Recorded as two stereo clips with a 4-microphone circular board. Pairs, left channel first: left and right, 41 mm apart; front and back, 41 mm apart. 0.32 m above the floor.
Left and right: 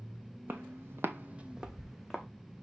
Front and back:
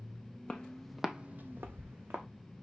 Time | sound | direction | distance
0.5 | footsteps | 65° right | 1.1 m